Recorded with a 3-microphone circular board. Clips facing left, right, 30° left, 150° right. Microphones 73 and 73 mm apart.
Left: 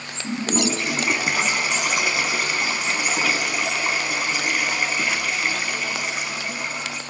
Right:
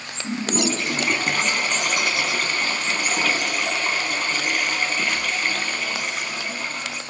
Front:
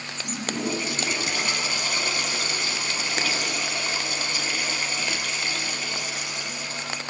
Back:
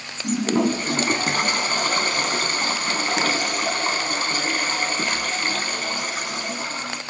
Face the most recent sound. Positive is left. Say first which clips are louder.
# even, back 9 dB
turn(degrees=170)